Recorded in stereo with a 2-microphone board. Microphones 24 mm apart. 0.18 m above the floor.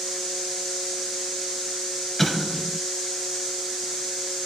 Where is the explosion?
5° left (ahead or behind), 2 m.